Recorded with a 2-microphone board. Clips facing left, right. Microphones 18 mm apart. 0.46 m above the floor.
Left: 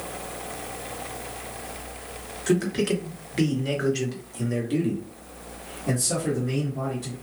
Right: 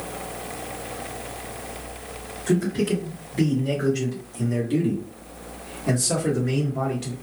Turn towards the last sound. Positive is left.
turn(degrees=-45)  # may be behind; listen again after turning